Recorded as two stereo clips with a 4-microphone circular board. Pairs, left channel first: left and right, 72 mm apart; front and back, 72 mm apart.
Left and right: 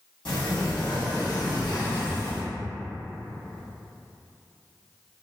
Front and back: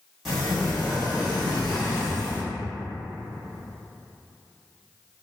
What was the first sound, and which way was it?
A sliding door, 90° left.